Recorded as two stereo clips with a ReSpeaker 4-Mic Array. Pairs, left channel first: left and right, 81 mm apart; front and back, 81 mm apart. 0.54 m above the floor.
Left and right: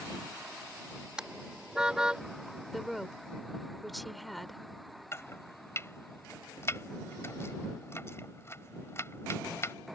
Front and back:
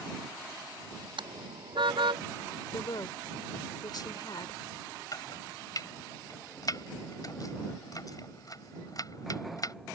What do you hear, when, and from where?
1.2 s a car horn: 170° right
2.7 s a woman speaking: straight ahead
5.1 s chopping: 35° left